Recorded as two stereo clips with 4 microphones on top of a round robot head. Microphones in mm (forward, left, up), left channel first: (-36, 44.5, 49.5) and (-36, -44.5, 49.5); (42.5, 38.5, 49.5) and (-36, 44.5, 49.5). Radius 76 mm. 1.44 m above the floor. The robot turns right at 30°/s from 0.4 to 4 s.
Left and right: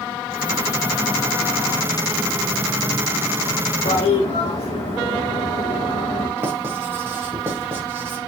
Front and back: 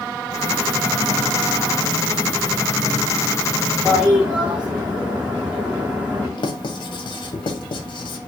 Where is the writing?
25° right, 1.2 m.